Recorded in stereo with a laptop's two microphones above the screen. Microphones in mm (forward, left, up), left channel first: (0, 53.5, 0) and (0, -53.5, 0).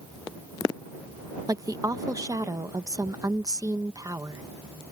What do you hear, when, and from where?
1.5 s a woman speaking: 35° right (ahead or behind)